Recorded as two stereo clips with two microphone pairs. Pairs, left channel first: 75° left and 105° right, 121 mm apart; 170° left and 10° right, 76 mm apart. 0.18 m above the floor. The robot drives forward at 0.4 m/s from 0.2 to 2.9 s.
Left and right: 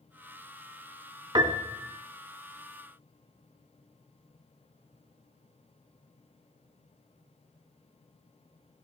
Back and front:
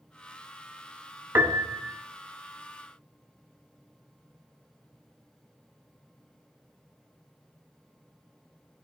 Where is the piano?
55° right, 0.6 m; by 2.0 s 85° right, 0.6 m.